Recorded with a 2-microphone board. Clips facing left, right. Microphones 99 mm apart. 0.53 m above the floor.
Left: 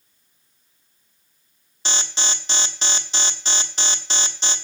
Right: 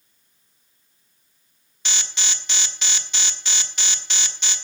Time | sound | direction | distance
1.9 | an alarm | 30° left (ahead or behind) | 1.2 m